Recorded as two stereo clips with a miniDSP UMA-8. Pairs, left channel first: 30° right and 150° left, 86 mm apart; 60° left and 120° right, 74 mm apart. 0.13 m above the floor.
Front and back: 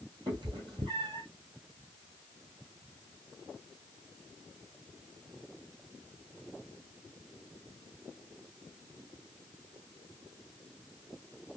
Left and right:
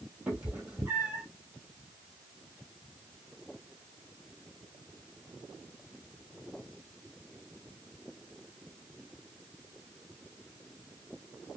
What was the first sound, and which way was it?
A cat meowing, 170° left.